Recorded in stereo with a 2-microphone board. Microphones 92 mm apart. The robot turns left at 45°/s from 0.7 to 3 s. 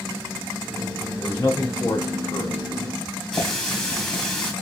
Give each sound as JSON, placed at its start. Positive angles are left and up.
{"t": 1.2, "sound": "a man speaking", "azimuth_deg": 160, "distance_m": 1.1}
{"t": 3.3, "sound": "a running tap", "side_deg": 5, "distance_m": 1.5}